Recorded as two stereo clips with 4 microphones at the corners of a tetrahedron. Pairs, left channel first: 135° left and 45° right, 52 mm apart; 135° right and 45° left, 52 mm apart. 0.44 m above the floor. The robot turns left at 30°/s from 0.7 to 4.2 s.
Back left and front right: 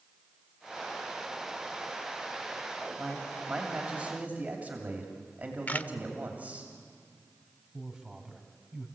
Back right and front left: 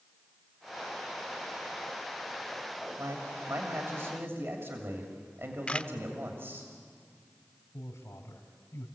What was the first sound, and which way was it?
A man speaking, 50° left.